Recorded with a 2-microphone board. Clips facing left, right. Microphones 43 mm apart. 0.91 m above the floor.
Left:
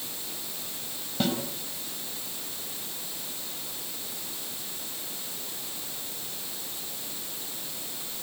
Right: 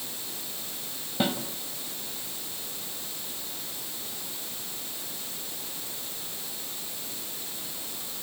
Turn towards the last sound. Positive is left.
turn(degrees=-20)  # may be behind; listen again after turning